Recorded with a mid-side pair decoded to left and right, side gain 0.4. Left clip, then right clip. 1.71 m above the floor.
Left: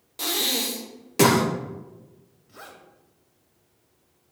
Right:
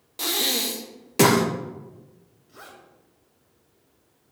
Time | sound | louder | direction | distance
0.2 | breathing | right 1 dB | 15° right | 1.4 m
2.5 | a zipper | left 1 dB | 15° left | 2.5 m